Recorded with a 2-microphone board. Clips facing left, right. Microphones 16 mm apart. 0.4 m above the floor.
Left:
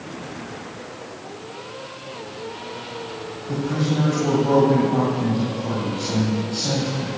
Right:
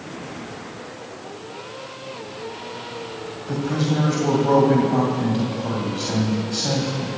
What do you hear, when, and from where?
3.5 s a man speaking: 30° right (ahead or behind), 2.5 m